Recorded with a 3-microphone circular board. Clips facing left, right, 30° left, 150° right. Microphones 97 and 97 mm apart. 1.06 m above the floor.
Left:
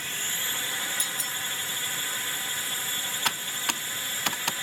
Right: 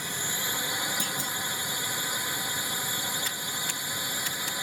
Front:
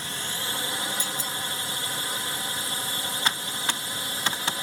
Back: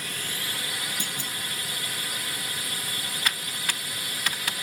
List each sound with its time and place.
0.0 s a drone: 20° right
1.0 s a clunk: 120° right
3.2 s typing on a keyboard: 90° left